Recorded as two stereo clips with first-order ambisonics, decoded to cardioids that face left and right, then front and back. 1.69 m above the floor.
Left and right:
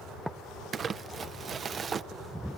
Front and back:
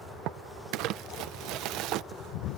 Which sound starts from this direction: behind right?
Crumpling, at 0.7 s.